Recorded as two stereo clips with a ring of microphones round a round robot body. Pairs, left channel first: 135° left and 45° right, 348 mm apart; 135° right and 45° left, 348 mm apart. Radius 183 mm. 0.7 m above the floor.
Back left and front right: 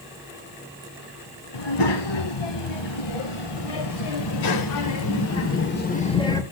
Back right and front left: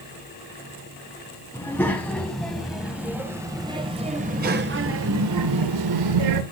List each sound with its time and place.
1.5 s a child speaking: 140° left, 3.5 m; by 6.4 s 55° left, 1.5 m